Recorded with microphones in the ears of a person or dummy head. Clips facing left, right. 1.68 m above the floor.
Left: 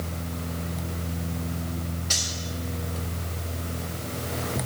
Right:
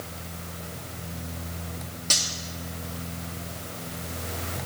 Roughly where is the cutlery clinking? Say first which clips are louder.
Even; right.